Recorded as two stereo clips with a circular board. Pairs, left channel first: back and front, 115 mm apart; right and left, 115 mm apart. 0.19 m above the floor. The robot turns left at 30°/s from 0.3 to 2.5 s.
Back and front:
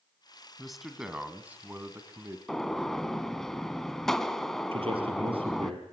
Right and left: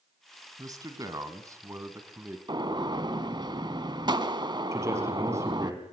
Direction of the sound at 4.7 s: 25° left.